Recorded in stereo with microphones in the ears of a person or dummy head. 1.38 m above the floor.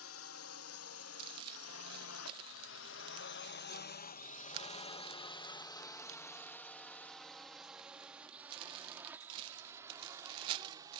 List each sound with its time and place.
0.0 s a drone: 80° left; by 11.0 s 30° right (ahead or behind)
1.2 s crumpling: 25° right (ahead or behind)